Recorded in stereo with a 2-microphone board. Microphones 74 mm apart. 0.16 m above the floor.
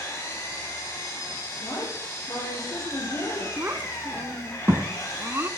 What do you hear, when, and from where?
0.0 s an engine running: 40° left (ahead or behind), 6.5 m
1.6 s a woman speaking: 50° left (ahead or behind), 4.5 m
3.6 s a child speaking: 35° right (ahead or behind), 0.7 m